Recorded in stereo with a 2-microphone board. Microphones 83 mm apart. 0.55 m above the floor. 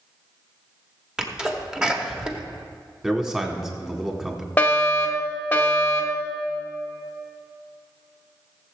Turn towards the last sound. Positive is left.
turn(degrees=20)  # may be behind; listen again after turning